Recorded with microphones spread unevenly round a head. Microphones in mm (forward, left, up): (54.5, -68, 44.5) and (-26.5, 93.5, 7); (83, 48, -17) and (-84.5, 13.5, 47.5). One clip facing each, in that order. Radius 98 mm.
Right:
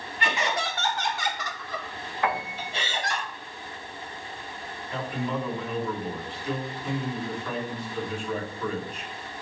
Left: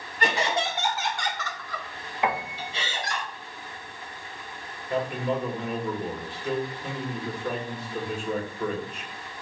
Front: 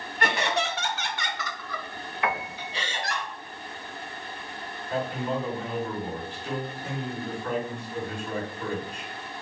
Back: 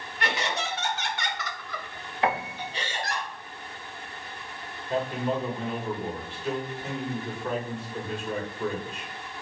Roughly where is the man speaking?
Behind left.